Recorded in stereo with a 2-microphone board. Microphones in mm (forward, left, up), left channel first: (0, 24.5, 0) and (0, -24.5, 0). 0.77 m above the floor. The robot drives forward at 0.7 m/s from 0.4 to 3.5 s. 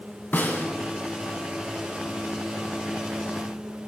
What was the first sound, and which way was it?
A snare drum, 40° left (ahead or behind).